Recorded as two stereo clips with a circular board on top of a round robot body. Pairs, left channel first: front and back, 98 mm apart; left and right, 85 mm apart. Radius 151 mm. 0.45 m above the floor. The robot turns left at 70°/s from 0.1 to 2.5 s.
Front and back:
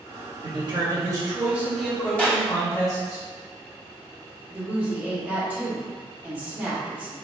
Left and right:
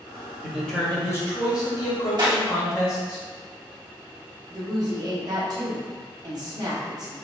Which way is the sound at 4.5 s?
110° right.